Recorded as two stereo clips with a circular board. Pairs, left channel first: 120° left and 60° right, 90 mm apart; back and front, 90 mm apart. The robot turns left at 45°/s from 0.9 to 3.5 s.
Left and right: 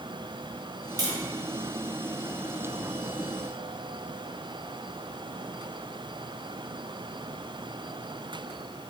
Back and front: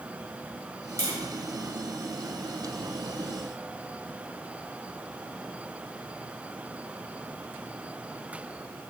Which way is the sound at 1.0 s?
45° right.